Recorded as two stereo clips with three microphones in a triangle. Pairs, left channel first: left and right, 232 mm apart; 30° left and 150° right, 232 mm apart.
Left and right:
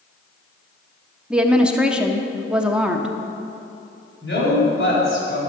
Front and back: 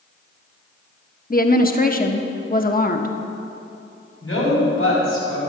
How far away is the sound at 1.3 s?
About 0.9 m.